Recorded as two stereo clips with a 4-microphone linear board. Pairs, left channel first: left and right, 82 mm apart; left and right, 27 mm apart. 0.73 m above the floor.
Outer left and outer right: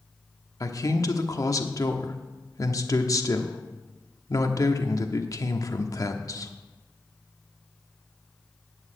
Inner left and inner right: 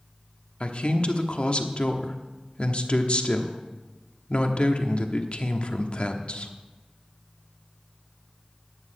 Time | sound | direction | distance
0.6 | a man speaking | 45° left (ahead or behind) | 1.1 m